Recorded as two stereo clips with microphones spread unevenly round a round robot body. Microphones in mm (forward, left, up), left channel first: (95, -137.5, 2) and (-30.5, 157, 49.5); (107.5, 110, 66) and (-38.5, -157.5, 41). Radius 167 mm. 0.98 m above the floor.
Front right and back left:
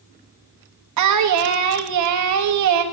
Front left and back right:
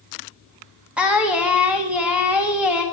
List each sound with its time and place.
1.0 s singing: 155° left, 1.3 m